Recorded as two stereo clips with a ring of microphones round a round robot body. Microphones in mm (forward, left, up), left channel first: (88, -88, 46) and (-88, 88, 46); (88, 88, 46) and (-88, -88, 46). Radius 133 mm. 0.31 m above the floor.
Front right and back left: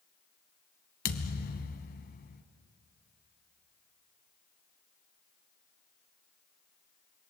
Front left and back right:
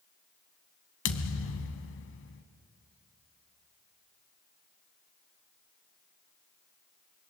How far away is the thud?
About 1.5 m.